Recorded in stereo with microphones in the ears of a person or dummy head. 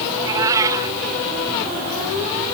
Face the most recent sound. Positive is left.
turn(degrees=-15)  # may be behind; listen again after turning